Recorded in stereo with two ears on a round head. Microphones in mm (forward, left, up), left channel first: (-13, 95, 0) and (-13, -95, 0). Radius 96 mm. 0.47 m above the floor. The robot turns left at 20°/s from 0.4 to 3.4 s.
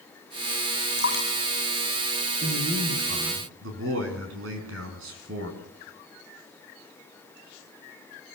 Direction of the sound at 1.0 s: 50° left (ahead or behind).